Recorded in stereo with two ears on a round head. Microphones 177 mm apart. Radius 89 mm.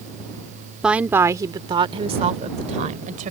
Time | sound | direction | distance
0.8 | a woman speaking | 5° right (ahead or behind) | ?